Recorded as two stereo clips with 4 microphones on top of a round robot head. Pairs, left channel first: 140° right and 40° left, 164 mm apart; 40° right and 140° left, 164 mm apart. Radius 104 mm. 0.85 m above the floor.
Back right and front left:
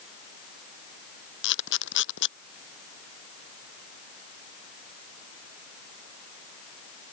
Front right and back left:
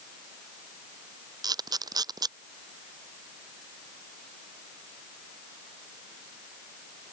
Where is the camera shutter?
150° right.